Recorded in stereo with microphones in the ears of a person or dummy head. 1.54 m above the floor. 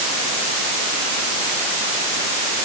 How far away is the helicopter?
I don't hear a helicopter.